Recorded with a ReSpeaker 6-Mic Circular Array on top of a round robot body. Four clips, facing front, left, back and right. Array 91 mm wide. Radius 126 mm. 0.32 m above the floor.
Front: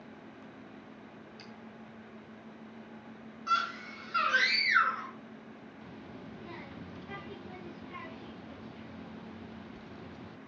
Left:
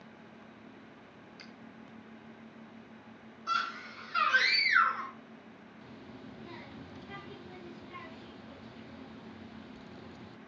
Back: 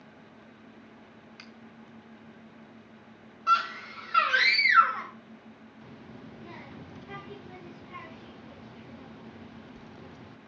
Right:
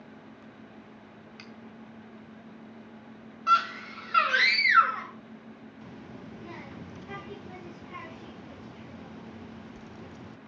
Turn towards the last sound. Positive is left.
turn(degrees=-95)